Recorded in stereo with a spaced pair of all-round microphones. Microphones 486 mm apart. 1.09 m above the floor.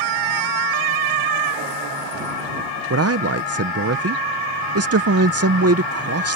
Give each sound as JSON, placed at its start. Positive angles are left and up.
{"t": 2.9, "sound": "a man speaking", "side_deg": -30}